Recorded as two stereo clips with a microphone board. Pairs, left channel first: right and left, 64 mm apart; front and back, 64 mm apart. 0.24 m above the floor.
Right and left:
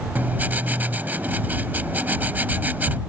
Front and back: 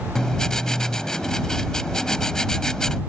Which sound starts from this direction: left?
Writing, at 0.1 s.